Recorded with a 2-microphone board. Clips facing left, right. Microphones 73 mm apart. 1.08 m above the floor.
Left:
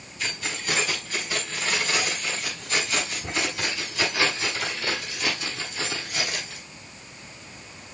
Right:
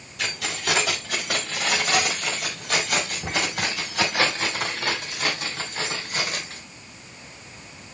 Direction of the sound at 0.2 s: 80° right.